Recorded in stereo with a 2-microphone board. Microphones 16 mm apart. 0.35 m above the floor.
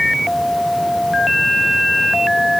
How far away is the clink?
I don't hear a clink.